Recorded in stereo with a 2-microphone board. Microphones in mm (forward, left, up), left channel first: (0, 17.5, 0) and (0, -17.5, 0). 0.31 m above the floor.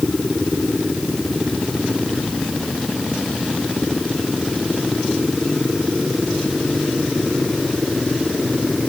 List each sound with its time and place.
Only background noise.